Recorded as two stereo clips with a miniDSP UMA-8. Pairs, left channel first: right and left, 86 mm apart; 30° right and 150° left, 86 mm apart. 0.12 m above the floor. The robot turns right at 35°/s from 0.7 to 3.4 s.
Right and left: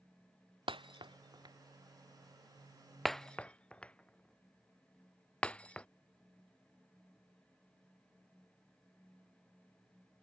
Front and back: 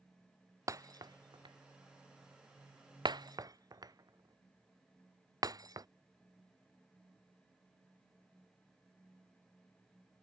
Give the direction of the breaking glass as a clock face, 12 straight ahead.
9 o'clock.